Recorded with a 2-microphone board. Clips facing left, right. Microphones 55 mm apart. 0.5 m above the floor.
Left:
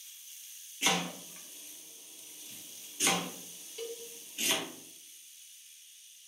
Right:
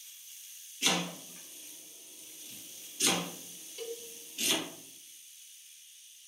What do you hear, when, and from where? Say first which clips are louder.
0.8 s chopping: left 1 dB; 20° left (ahead or behind), 1.3 m
3.8 s a cowbell: even; 5° left (ahead or behind), 0.6 m